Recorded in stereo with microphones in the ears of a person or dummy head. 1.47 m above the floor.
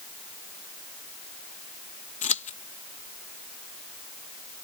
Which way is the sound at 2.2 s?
45° left (ahead or behind).